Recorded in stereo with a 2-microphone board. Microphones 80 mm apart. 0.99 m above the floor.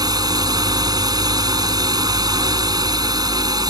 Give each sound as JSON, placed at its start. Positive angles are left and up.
{"t": 0.0, "sound": "a drone", "side_deg": -50}